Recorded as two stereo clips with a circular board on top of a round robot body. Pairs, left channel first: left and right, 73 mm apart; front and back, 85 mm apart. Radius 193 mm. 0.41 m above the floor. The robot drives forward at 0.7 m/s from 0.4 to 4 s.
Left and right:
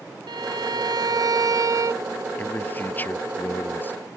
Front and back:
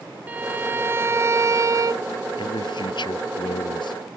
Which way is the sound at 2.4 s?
25° left.